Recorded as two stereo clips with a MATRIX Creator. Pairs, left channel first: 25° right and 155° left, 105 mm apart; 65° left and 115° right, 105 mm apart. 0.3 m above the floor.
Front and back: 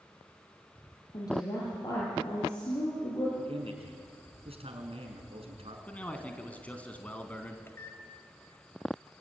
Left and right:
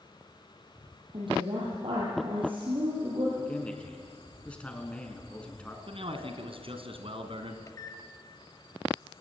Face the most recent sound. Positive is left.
turn(degrees=30)